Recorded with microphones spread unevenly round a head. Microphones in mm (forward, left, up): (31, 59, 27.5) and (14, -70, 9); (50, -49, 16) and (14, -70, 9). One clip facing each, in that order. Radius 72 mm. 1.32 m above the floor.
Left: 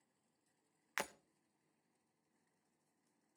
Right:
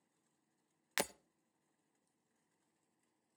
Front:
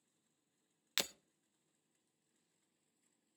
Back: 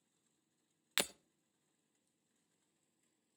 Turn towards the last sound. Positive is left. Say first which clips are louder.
# right 5 dB, back 2 dB
turn(degrees=-80)